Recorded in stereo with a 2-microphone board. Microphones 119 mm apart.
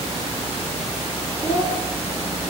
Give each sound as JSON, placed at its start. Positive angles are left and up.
{"t": 1.4, "sound": "a child speaking", "side_deg": 25, "distance_m": 3.0}